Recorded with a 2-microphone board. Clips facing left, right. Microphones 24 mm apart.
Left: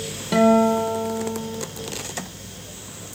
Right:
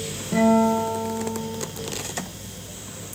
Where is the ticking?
No ticking in this recording.